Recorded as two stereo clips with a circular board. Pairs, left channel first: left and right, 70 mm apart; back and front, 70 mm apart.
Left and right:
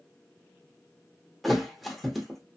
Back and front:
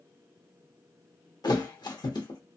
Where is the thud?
Straight behind, 0.8 m.